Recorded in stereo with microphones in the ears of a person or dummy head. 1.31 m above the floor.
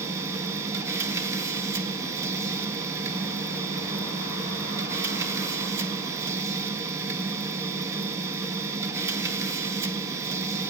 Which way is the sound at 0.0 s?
10° right (ahead or behind).